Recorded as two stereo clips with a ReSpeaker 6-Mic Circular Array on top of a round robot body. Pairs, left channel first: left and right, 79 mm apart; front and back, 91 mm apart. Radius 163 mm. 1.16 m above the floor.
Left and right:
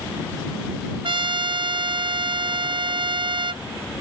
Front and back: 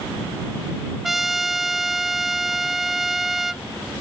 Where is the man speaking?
No man speaking in this recording.